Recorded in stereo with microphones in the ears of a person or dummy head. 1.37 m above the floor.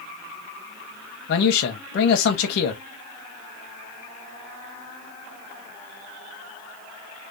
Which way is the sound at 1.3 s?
70° left (ahead or behind).